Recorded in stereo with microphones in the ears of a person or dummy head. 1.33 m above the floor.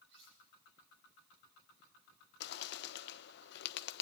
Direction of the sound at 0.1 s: 70° right (ahead or behind).